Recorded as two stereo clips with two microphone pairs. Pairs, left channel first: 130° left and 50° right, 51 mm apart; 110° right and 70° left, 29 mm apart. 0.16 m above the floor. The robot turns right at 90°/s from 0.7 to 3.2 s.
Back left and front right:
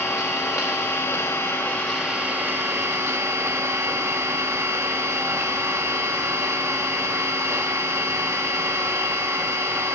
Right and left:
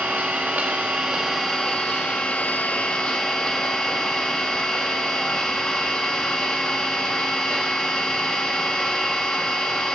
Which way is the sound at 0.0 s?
100° left.